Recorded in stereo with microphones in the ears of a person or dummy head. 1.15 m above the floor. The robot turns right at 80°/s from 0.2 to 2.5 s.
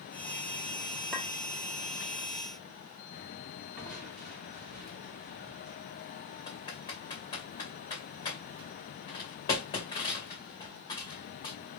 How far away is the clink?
About 1.6 m.